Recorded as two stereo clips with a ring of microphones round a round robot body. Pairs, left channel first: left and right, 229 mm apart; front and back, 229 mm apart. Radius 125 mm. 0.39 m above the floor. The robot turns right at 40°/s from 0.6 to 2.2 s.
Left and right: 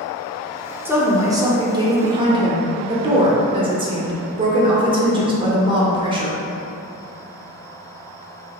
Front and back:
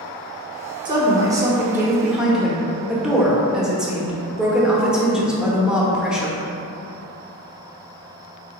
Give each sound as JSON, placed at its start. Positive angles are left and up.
{"t": 0.8, "sound": "a woman speaking", "azimuth_deg": -155, "distance_m": 0.8}